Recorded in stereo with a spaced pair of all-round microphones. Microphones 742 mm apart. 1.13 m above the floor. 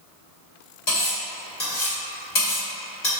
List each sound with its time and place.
0.9 s cutlery clinking: 70° left (ahead or behind), 1.8 m